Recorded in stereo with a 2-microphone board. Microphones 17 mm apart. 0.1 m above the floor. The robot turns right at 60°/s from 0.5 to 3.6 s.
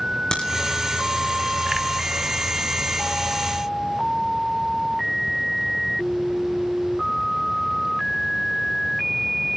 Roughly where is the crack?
Left.